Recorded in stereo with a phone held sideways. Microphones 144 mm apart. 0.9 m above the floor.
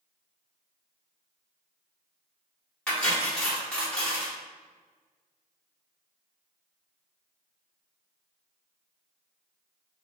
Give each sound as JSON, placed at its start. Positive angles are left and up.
{"t": 2.9, "sound": "cutlery clinking", "side_deg": 5, "distance_m": 1.1}